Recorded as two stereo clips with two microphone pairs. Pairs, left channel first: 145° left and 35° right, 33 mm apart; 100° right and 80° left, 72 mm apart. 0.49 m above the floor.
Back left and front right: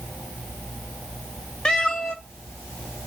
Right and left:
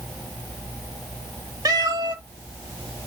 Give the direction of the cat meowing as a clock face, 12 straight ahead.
9 o'clock.